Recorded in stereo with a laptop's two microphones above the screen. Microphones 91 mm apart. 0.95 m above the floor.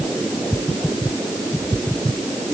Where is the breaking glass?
No breaking glass in this recording.